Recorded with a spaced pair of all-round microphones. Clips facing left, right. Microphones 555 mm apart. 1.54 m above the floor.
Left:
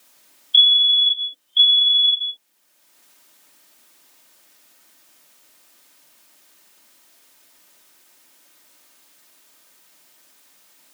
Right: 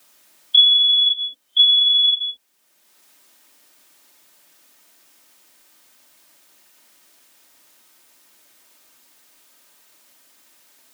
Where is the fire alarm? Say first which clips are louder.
Even; 45° right (ahead or behind).